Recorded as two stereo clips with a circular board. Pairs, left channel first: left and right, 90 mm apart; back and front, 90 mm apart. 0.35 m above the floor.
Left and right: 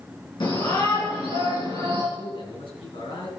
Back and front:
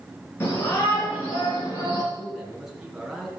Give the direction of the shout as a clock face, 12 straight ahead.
8 o'clock.